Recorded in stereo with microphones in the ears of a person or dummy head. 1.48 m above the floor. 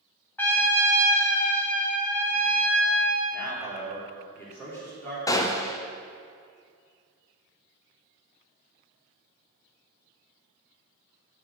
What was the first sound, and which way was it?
A trumpet, 10° left (ahead or behind).